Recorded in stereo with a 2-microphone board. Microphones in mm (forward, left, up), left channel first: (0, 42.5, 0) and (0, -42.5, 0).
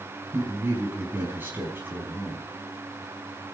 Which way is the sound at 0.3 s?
25° right (ahead or behind).